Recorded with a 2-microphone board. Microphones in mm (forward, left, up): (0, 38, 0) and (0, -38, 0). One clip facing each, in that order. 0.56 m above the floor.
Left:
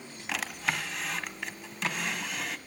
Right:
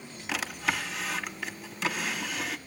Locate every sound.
0.3 s a drawer: centre (ahead or behind), 1.3 m